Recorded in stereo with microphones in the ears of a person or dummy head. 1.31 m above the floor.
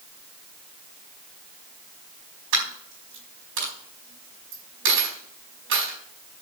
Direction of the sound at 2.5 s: 75° right (ahead or behind).